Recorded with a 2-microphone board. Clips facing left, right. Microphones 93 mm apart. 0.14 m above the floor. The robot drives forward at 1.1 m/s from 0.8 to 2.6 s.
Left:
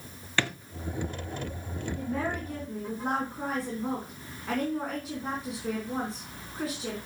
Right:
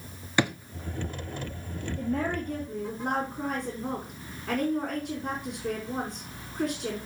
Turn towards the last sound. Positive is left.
turn(degrees=5)  # may be behind; listen again after turning